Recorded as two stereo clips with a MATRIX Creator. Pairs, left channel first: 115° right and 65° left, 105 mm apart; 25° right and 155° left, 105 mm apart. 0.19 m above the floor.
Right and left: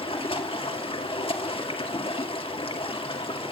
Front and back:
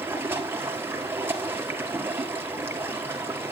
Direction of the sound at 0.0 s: 135° right.